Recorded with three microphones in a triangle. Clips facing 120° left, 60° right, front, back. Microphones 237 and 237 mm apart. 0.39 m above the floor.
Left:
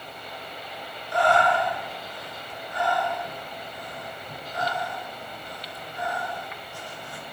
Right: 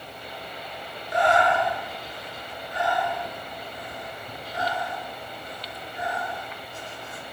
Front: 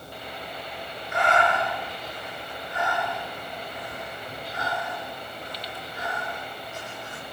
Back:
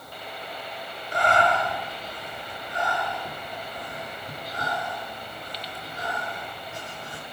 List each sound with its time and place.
1.1 s breathing: 125° right, 6.5 m